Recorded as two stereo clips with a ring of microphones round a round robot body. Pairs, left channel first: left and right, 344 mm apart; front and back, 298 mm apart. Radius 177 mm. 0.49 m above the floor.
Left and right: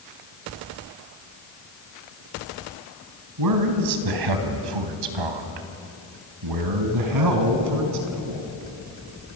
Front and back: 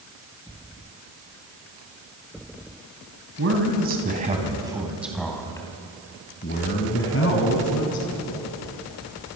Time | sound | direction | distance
3.4 | a man speaking | 125° right | 3.5 m